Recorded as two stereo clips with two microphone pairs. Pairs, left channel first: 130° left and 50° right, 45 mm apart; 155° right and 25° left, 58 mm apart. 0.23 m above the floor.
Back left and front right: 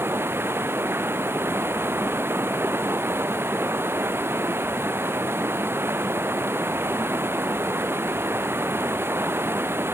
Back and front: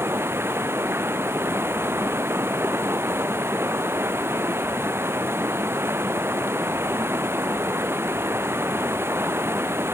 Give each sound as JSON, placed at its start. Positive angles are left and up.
{"t": 0.0, "sound": "running water", "azimuth_deg": -20}